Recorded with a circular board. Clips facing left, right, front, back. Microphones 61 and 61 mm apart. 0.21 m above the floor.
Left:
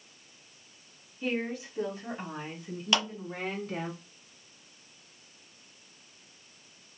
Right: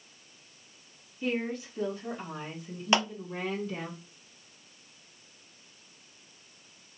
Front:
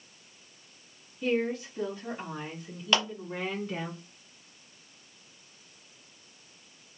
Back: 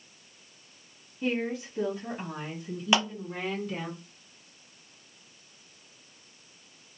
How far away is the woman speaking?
About 1.5 m.